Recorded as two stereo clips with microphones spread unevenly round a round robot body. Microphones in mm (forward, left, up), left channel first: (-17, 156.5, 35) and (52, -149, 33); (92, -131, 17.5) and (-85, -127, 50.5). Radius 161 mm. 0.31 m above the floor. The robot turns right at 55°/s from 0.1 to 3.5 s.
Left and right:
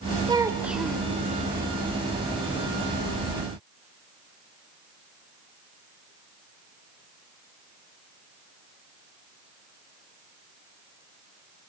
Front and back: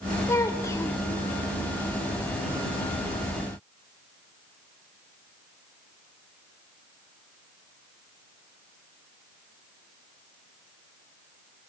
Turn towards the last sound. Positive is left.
turn(degrees=160)